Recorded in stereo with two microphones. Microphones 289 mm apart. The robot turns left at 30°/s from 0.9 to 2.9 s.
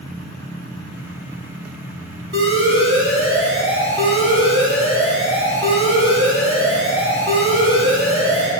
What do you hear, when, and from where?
2.3 s an alarm: 45° right (ahead or behind), 1.4 m